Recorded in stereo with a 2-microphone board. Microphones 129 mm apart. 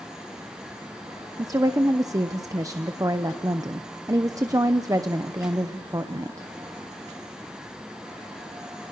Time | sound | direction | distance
1.4 | a woman speaking | 25° right (ahead or behind) | 0.7 m